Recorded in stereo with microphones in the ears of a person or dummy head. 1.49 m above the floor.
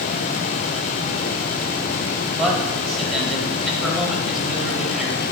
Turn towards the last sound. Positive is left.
turn(degrees=0)  # may be behind; listen again after turning